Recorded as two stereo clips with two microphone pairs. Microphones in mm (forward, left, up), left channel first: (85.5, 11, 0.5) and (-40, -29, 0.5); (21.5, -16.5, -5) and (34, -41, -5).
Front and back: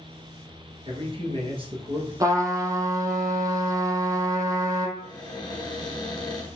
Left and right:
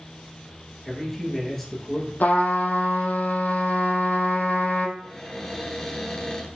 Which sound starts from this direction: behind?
A man speaking, at 0.8 s.